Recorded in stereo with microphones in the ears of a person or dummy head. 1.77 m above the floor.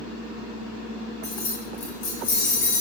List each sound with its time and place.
1.2 s keys jangling: 45° left (ahead or behind), 0.8 m